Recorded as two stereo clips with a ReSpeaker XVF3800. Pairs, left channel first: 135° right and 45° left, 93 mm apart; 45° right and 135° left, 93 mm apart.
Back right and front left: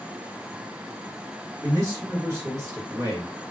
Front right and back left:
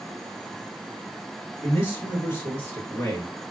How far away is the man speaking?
About 2 m.